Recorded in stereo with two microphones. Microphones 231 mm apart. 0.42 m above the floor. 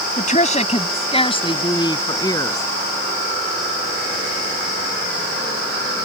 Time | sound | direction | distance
0.2 | a woman speaking | 35° left (ahead or behind) | ?